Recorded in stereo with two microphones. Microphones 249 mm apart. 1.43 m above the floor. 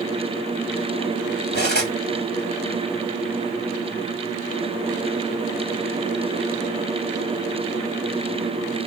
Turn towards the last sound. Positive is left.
turn(degrees=45)  # may be behind; listen again after turning